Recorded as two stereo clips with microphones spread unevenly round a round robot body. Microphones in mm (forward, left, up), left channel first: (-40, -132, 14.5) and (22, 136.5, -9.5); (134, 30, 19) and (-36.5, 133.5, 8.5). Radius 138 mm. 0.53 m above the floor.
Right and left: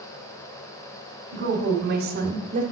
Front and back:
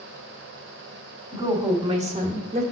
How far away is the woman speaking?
About 1.5 m.